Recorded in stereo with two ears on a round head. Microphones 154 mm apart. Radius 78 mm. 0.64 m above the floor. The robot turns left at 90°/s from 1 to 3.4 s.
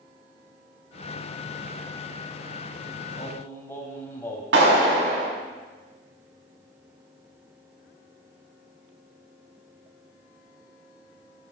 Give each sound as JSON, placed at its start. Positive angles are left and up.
{"t": 3.2, "sound": "singing", "side_deg": 35, "distance_m": 1.9}
{"t": 4.5, "sound": "a clap", "side_deg": -80, "distance_m": 4.5}